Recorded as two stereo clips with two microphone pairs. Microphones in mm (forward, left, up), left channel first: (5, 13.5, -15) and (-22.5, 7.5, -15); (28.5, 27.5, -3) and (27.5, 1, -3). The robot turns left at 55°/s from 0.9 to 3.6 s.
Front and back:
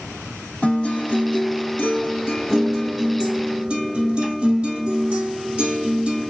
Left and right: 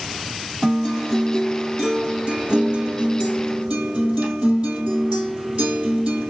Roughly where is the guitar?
Ahead.